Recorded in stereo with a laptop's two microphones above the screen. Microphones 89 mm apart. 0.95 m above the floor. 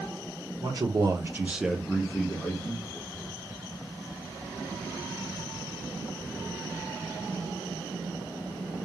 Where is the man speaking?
50° right (ahead or behind), 0.7 m; by 2.9 s 30° left (ahead or behind), 1.0 m.